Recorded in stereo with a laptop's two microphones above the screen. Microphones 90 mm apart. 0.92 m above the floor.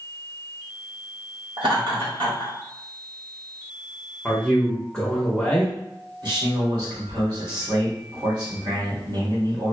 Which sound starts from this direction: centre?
A man speaking, at 4.2 s.